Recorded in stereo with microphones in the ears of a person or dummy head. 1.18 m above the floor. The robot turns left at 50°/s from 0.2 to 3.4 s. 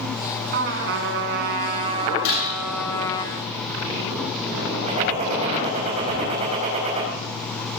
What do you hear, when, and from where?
0.5 s a trumpet: 70° right, 1.8 m; by 3.2 s 150° left, 1.8 m
2.2 s breaking glass: 60° left (ahead or behind), 7 m; by 2.5 s 75° left (ahead or behind), 7 m
4.9 s a gunshot: 40° right (ahead or behind), 5 m